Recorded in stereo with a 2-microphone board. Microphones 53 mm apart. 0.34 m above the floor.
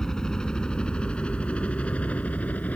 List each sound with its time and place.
0.0 s a helicopter: 10° left (ahead or behind); by 2.8 s 30° left (ahead or behind)